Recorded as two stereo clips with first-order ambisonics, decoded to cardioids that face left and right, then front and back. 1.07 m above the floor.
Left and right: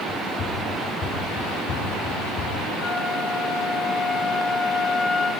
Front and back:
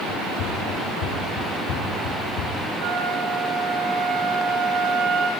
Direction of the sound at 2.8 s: 155° left.